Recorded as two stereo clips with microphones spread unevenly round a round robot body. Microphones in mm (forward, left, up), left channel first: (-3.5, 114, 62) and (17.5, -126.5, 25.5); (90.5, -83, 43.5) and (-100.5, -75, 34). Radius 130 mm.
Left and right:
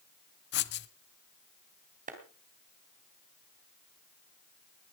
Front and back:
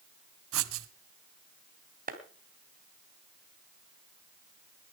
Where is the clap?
140° right, 2.5 m.